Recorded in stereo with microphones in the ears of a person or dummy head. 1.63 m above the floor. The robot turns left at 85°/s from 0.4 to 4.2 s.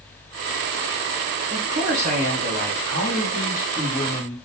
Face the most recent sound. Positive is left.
turn(degrees=155)